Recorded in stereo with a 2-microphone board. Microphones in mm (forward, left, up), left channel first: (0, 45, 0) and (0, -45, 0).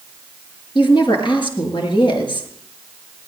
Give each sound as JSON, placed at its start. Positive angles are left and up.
{"t": 0.8, "sound": "a woman speaking", "side_deg": 65, "distance_m": 6.0}